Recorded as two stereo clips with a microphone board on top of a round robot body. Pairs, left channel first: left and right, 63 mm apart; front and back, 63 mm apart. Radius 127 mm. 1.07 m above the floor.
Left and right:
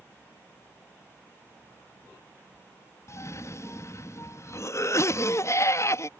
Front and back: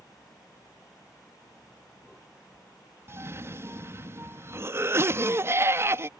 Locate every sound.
3.1 s a cough: 130° left